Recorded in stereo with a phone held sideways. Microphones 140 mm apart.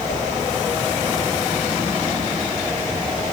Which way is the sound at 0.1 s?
65° left (ahead or behind).